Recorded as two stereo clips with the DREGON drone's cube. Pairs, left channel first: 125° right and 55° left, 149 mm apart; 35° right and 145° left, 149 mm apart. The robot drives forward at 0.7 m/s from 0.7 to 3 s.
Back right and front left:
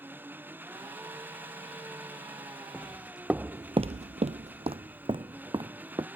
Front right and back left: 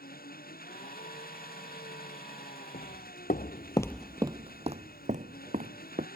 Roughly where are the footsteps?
Ahead right.